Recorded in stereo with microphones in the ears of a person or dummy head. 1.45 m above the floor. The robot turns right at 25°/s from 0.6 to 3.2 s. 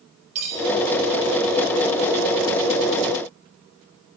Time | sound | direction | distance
0.3 | cutlery clinking | 35° right (ahead or behind) | 4.5 m